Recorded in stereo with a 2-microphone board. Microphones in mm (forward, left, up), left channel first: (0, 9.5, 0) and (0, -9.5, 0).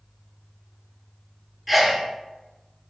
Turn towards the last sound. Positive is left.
turn(degrees=-5)  # may be behind; listen again after turning